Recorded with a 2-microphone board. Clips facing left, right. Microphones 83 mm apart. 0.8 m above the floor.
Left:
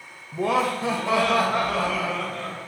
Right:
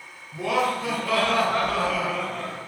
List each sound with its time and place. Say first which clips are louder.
0.3 s laughter: left 1 dB; 40° left (ahead or behind), 1.0 m; by 2.6 s 15° right (ahead or behind), 1.3 m